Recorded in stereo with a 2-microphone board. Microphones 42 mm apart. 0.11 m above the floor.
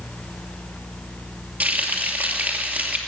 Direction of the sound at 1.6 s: 40° right (ahead or behind).